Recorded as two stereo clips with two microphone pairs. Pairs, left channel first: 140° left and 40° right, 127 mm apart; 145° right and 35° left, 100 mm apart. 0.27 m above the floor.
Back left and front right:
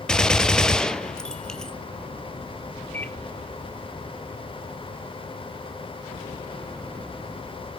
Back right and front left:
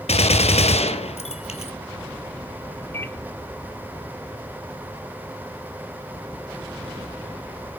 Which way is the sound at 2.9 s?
165° right.